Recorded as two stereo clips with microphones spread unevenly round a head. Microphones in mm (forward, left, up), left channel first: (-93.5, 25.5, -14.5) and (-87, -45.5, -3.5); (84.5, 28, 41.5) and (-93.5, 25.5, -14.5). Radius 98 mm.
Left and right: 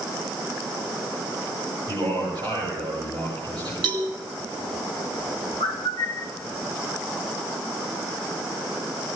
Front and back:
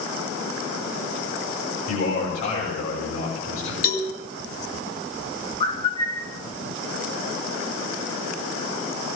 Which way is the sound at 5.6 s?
65° left.